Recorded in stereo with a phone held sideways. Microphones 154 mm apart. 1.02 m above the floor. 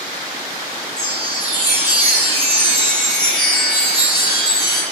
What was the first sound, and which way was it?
A chime, 25° left (ahead or behind).